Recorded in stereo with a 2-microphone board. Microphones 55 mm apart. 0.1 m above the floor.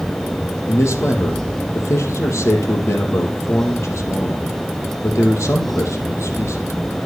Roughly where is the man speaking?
Left.